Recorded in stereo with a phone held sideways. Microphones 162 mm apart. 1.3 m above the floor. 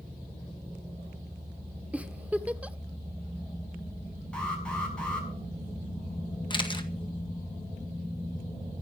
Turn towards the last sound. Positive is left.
turn(degrees=30)  # may be behind; listen again after turning